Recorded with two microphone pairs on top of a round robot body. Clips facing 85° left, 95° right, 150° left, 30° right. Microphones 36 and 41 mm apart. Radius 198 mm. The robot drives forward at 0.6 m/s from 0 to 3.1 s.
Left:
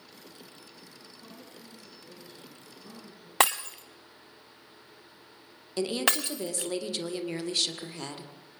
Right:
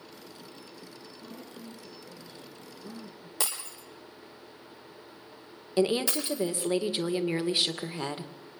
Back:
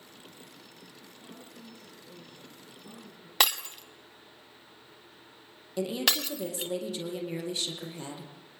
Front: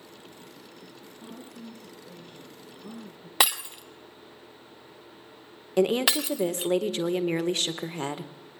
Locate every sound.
1.2 s a woman speaking: straight ahead, 10 m; by 3.3 s 5° right, 8.5 m
3.4 s breaking glass: 55° left, 1.2 m
5.8 s a woman speaking: 25° right, 2 m